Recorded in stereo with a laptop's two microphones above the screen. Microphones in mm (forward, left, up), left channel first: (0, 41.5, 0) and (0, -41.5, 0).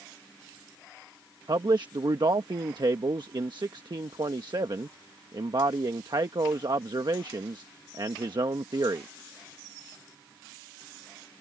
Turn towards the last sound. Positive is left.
turn(degrees=-60)  # may be behind; listen again after turning